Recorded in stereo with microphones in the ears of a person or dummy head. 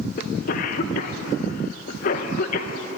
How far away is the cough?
About 1.0 m.